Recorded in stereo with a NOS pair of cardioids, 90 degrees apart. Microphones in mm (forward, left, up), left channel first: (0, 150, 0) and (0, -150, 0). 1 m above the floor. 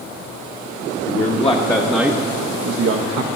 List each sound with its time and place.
1.1 s a man speaking: 30° left, 1.1 m; by 3.3 s 65° right, 0.8 m